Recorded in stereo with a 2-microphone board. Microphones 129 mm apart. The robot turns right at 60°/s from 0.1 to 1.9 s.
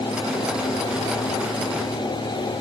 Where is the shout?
I don't hear a shout.